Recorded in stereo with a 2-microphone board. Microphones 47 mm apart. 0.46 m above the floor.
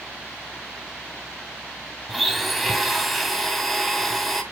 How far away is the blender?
About 1.5 m.